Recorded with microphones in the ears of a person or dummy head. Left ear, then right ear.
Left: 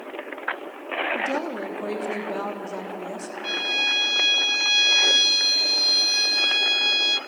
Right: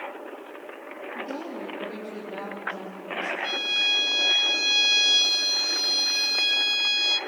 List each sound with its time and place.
1.1 s a woman speaking: 60° left (ahead or behind), 3.5 m
3.4 s a violin: centre (ahead or behind), 0.7 m